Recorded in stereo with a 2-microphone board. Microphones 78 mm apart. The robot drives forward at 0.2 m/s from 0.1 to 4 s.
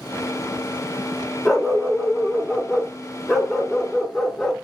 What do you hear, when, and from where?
1.4 s a dog barking: centre (ahead or behind), 0.8 m